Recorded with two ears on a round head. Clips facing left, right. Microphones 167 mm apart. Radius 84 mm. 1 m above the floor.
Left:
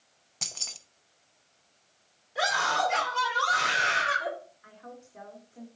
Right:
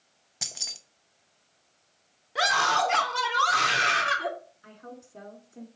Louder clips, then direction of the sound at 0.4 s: Even; 10° right (ahead or behind).